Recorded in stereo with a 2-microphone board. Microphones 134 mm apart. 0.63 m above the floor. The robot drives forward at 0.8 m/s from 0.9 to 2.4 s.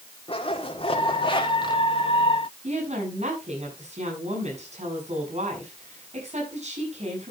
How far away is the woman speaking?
About 7.5 m.